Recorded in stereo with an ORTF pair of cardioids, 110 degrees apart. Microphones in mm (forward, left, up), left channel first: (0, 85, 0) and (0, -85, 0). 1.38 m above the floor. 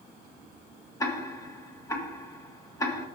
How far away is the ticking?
About 1.4 m.